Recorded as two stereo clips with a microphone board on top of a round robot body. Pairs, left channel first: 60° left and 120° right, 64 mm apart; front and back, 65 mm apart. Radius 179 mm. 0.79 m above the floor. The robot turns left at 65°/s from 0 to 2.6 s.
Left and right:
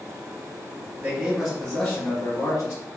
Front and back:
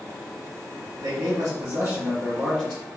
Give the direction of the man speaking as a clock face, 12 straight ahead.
6 o'clock.